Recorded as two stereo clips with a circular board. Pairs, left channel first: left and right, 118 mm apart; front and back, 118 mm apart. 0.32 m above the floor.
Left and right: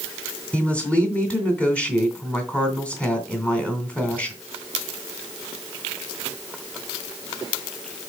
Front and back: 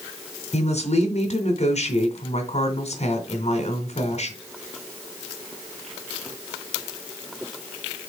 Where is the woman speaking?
10° left, 2.5 m.